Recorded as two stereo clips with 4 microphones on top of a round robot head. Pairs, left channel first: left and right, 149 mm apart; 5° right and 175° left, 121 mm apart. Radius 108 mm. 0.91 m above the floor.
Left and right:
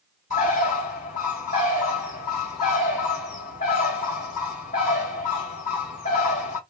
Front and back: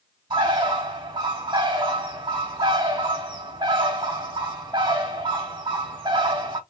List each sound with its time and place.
0.3 s a bird: 125° left, 3 m